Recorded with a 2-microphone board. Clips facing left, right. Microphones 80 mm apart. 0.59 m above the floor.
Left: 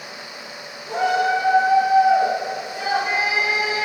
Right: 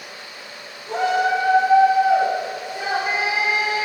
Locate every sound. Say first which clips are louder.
0.9 s a shout: even; 5° right (ahead or behind), 7 m; by 3.9 s 30° right (ahead or behind), 8.5 m